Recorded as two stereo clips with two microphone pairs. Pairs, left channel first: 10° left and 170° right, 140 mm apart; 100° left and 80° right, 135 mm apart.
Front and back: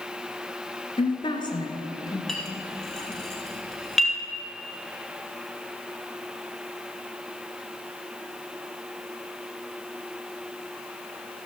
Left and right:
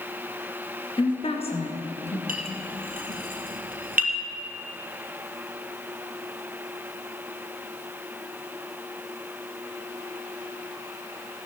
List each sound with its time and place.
1.0 s a woman speaking: 55° left, 1.7 m; by 2.2 s 75° left, 2.5 m
2.3 s a clink: 75° right, 2.5 m